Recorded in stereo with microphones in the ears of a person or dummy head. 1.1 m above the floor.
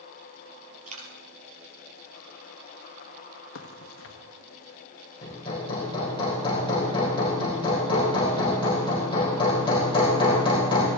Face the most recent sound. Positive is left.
turn(degrees=30)  # may be behind; listen again after turning